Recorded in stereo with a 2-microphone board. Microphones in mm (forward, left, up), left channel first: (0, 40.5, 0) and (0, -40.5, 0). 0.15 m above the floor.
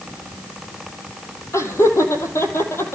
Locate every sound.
1.5 s laughter: 35° left (ahead or behind), 5.5 m; by 3.0 s 30° left (ahead or behind), 4.5 m